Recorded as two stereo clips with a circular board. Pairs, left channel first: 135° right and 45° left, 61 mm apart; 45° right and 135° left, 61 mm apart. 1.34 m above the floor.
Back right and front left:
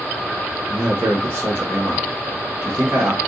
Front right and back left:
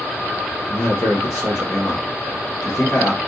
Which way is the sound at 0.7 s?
5° right.